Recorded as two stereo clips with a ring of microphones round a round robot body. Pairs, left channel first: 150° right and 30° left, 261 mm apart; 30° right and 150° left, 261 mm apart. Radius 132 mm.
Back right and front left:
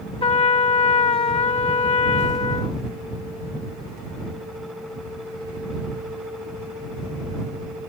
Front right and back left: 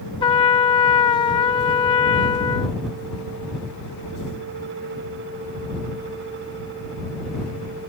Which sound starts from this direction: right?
A trumpet, at 0.2 s.